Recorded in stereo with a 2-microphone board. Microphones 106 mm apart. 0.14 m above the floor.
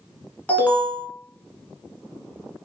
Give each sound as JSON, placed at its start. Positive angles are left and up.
{"t": 0.5, "sound": "an alarm", "side_deg": 15, "distance_m": 1.1}